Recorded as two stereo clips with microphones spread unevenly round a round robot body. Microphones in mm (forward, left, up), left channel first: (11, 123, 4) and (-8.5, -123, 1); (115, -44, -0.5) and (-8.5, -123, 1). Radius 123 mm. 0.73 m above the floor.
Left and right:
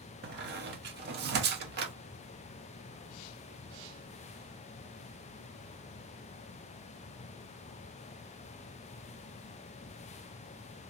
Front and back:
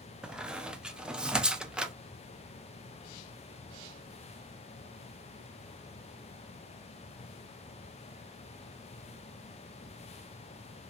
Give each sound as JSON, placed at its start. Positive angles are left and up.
{"t": 0.2, "sound": "a squeak", "azimuth_deg": -65, "distance_m": 0.6}